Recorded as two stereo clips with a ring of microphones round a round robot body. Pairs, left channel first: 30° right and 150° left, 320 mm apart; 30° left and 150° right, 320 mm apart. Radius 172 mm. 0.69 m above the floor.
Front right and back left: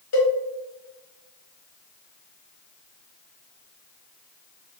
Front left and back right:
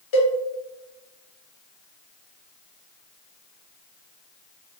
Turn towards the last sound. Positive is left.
turn(degrees=15)